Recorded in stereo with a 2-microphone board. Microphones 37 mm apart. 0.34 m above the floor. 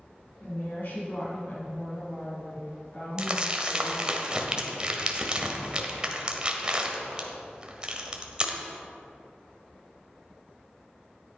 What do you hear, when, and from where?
0.4 s a woman speaking: 60° left (ahead or behind), 5 m
3.2 s crumpling: 25° right (ahead or behind), 1.4 m